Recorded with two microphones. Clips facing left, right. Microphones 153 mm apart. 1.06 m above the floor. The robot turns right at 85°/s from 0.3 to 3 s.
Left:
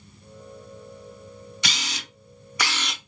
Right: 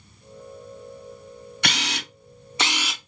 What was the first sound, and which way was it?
A camera shutter, 60° right (ahead or behind).